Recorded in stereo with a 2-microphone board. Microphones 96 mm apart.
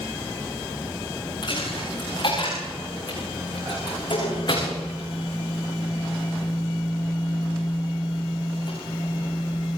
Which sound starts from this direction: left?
A dropped coin, at 1.4 s.